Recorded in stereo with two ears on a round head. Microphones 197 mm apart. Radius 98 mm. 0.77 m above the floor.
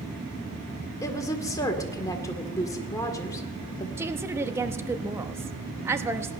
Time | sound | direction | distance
1.0 | a woman speaking | 15° left (ahead or behind) | 2.0 m
4.0 | a woman speaking | 10° right (ahead or behind) | 1.0 m